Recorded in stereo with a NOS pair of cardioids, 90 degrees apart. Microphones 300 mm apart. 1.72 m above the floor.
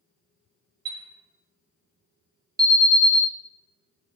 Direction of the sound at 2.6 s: 10° right.